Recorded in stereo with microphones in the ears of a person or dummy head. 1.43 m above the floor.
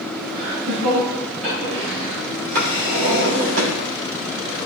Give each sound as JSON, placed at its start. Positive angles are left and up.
{"t": 0.3, "sound": "laughter", "side_deg": -45, "distance_m": 4.5}
{"t": 2.5, "sound": "a drawer", "side_deg": -60, "distance_m": 3.5}